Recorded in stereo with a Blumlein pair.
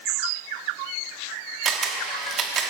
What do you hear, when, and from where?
1.6 s a camera shutter: 25° right, 1.2 m